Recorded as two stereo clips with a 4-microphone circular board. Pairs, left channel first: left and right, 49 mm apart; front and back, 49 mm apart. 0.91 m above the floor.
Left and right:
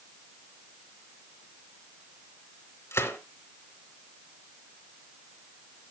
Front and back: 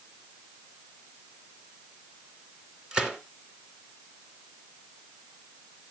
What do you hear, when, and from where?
2.9 s a gunshot: 105° left, 2.5 m